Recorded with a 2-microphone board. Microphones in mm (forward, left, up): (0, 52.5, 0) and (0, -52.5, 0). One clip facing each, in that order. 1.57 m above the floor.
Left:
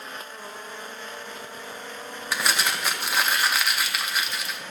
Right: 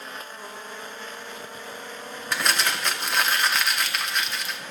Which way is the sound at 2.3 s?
5° left (ahead or behind).